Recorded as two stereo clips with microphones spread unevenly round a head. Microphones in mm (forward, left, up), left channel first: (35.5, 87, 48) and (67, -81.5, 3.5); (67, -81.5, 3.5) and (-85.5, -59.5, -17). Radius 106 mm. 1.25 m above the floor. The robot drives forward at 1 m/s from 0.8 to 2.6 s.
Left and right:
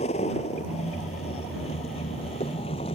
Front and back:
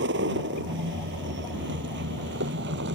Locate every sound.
0.0 s a vehicle: 160° left; by 3.0 s 165° left